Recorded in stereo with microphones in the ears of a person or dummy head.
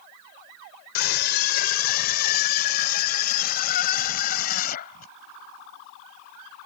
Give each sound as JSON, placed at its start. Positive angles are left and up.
{"t": 0.9, "sound": "a scream", "side_deg": 60}